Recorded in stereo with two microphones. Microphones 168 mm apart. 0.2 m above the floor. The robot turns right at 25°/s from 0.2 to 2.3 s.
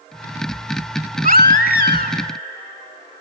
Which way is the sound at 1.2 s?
55° right (ahead or behind).